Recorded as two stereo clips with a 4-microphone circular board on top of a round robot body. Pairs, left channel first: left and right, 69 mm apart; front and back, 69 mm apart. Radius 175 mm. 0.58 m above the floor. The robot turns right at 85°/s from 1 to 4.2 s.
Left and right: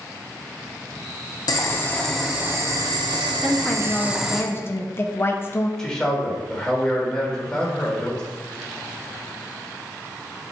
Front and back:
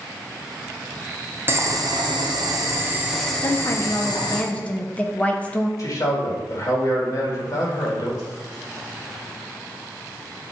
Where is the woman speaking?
5° right, 0.7 m; by 5.7 s 60° left, 0.7 m.